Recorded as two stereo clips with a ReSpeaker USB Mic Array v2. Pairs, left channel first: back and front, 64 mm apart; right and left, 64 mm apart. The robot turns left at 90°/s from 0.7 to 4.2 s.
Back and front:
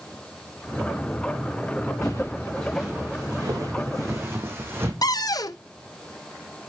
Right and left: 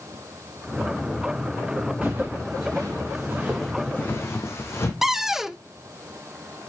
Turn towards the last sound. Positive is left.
turn(degrees=175)